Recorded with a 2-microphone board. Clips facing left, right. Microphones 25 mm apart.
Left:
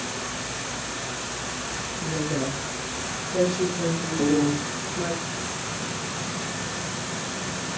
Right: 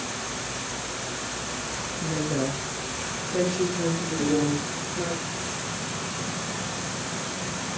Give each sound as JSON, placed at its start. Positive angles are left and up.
{"t": 2.0, "sound": "a woman speaking", "side_deg": -15, "distance_m": 3.0}
{"t": 4.2, "sound": "a piano", "side_deg": 35, "distance_m": 5.0}